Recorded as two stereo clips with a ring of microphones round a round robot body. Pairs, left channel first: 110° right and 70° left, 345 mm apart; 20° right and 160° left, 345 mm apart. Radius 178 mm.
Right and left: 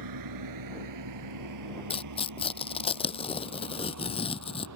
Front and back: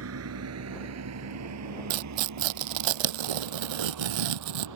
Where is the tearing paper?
170° left.